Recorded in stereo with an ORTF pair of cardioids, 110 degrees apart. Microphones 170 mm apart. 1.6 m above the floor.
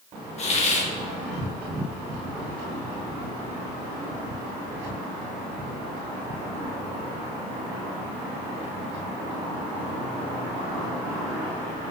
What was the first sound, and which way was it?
A hiss, 40° left.